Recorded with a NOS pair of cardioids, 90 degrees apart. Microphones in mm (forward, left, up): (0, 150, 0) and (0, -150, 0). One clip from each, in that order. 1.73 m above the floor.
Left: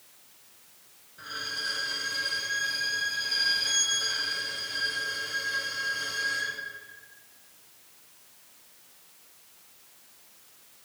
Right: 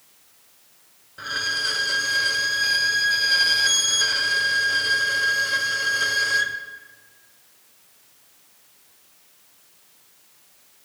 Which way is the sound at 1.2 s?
50° right.